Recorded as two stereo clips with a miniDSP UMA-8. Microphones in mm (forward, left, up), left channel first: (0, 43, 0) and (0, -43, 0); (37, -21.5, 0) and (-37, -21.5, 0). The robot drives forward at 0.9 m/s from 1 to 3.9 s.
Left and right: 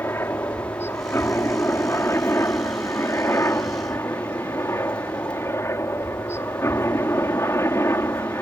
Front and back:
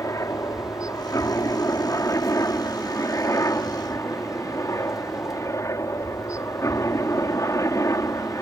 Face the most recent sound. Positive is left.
turn(degrees=40)